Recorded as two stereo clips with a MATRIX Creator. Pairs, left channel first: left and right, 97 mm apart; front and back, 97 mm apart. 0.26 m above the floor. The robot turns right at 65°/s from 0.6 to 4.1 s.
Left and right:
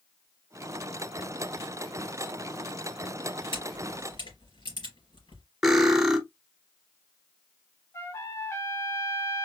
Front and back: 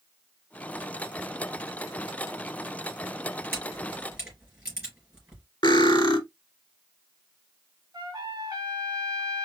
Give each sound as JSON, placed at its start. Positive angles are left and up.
{"t": 3.5, "sound": "a camera shutter", "azimuth_deg": 65, "distance_m": 3.5}
{"t": 5.6, "sound": "cutlery clinking", "azimuth_deg": 0, "distance_m": 1.0}
{"t": 7.9, "sound": "a trumpet", "azimuth_deg": 140, "distance_m": 0.9}